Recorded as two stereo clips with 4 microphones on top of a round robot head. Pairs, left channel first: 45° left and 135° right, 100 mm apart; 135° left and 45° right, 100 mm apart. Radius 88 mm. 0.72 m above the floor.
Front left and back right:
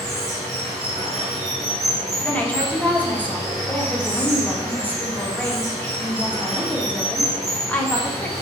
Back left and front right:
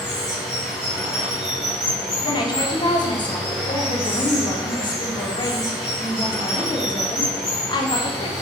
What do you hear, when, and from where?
0.0 s running water: 135° right, 1.1 m
2.2 s a woman speaking: 115° left, 0.6 m